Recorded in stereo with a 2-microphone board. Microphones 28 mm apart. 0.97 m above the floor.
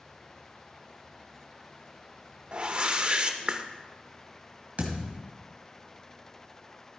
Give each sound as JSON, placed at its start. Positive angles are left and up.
{"t": 2.5, "sound": "a whoosh", "side_deg": -35, "distance_m": 0.7}
{"t": 4.8, "sound": "a thud", "side_deg": -60, "distance_m": 2.0}